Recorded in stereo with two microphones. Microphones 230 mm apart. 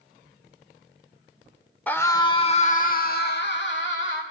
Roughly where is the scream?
Centre.